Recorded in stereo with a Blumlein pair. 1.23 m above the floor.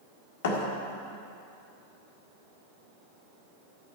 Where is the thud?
55° left, 1.6 m.